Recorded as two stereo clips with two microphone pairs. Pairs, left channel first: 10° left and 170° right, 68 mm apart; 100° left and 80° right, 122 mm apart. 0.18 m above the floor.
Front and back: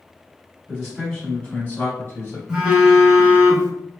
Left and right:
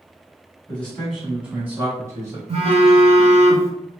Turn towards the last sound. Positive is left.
turn(degrees=-90)